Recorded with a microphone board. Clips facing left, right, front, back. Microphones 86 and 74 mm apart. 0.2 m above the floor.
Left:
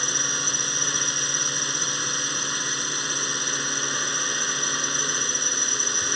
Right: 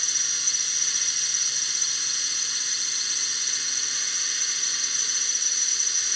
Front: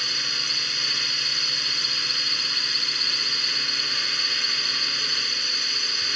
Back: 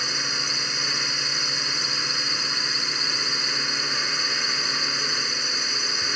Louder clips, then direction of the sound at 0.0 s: Left 10 dB, back 3 dB; 115° left.